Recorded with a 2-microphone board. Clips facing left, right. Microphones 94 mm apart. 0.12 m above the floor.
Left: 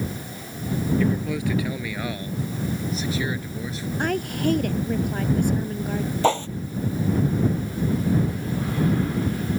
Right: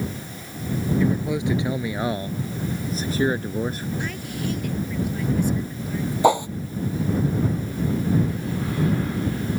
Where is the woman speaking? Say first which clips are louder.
Left 6 dB; 50° left (ahead or behind).